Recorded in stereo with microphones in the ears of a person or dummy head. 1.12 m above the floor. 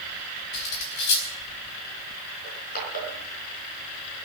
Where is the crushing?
50° left (ahead or behind), 5.5 m.